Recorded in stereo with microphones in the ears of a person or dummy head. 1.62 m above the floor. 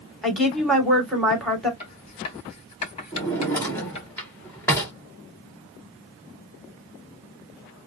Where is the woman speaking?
Centre (ahead or behind), 1.8 m.